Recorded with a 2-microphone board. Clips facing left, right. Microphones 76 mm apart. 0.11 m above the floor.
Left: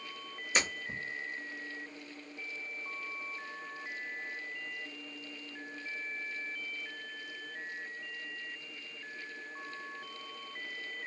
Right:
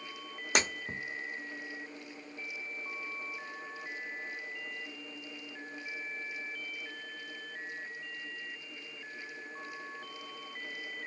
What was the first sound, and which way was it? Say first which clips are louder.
Breaking glass: right 2 dB; 70° right (ahead or behind).